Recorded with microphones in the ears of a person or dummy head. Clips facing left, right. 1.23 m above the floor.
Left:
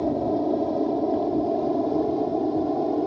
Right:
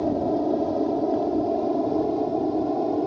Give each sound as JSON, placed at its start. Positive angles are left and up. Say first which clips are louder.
{"t": 0.0, "sound": "an aircraft", "louder": "even", "side_deg": -5}